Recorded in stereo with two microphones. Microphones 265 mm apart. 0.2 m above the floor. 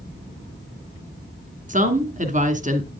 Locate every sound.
1.7 s a woman speaking: 30° right (ahead or behind), 2 m